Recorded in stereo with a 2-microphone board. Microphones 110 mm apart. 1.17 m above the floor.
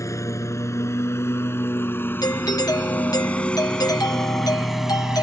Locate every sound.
0.0 s a lawn mower: 30° left (ahead or behind); by 5.2 s 5° right (ahead or behind)
2.2 s a doorbell: 35° left (ahead or behind)